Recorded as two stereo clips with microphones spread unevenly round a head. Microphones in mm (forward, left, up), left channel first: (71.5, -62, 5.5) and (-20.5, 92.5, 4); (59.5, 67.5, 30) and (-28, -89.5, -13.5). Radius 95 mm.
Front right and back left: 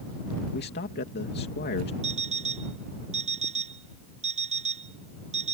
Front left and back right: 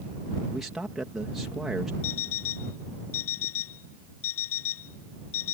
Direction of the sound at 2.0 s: 65° left.